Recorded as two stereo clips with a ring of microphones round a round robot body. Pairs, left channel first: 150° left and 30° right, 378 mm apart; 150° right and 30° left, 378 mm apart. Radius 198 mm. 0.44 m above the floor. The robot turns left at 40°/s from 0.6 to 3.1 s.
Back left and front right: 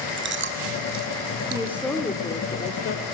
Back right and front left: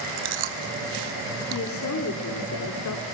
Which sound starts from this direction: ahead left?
Chewing, at 0.2 s.